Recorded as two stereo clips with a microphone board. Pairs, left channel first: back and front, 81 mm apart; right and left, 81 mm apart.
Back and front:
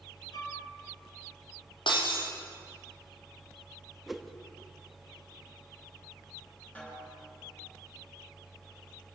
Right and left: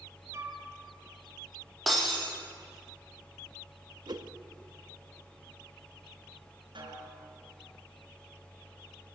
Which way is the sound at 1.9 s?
Straight behind.